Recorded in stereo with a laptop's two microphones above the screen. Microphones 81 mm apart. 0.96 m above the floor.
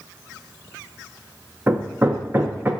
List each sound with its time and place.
1.7 s hammering: 30° right (ahead or behind), 0.6 m